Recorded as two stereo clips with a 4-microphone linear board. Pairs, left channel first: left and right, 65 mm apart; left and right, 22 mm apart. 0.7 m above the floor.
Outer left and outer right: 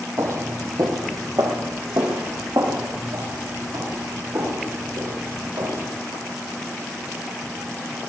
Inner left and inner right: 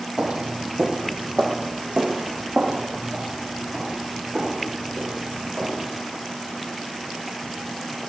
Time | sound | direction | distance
0.2 | footsteps | 45° right (ahead or behind) | 1.4 m